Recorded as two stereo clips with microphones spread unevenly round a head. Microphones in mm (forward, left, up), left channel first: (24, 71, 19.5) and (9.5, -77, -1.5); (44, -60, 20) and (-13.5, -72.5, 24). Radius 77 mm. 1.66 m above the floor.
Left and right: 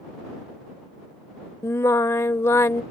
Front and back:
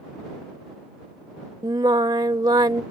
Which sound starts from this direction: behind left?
Singing, at 1.6 s.